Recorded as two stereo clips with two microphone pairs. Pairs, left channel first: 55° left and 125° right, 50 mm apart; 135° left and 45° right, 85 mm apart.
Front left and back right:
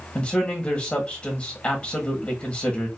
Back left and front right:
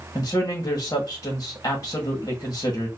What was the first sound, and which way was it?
A man speaking, 105° left.